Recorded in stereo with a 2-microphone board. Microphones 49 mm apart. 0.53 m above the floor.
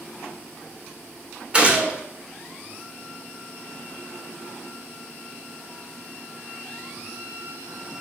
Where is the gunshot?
25° right (ahead or behind), 2.0 m.